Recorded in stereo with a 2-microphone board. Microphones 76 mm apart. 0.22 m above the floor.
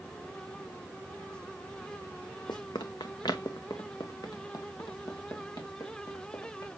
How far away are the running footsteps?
About 0.7 m.